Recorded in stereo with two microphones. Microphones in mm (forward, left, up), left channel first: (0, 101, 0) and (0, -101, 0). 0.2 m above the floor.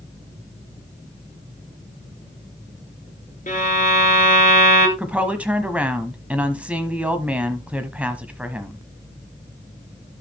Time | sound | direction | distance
3.5 | a violin | 40° left (ahead or behind) | 1.8 m
5.0 | a woman speaking | 5° right (ahead or behind) | 1.0 m